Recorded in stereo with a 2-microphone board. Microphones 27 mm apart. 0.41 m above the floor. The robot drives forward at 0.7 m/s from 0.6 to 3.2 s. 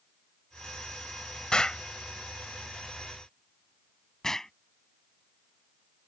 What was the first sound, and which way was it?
An explosion, 35° left (ahead or behind).